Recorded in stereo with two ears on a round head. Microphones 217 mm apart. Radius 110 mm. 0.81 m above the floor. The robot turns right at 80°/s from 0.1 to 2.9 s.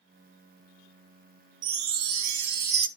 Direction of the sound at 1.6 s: 145° right.